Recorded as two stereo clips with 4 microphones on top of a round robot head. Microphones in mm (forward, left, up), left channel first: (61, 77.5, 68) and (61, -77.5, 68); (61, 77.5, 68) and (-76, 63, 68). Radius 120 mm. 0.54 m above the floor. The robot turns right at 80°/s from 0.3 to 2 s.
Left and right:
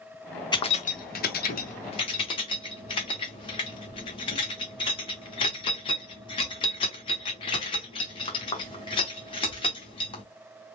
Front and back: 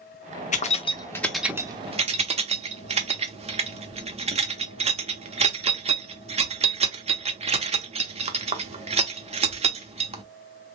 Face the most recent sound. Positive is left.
turn(degrees=145)